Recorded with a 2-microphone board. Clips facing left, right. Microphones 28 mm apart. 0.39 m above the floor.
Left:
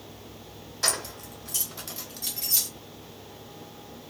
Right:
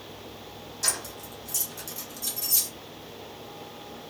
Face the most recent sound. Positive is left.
turn(degrees=40)  # may be behind; listen again after turning